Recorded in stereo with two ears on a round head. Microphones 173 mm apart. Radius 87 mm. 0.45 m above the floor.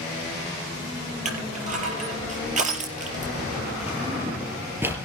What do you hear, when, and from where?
1.2 s crushing: 40° right (ahead or behind), 4.5 m
3.9 s a drawer: 10° right (ahead or behind), 3.5 m